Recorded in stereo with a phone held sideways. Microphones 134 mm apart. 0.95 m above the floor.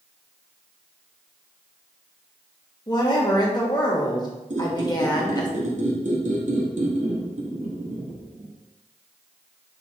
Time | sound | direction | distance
2.9 | a woman speaking | 30° left (ahead or behind) | 1.1 m
4.5 | a squeak | 65° right (ahead or behind) | 0.9 m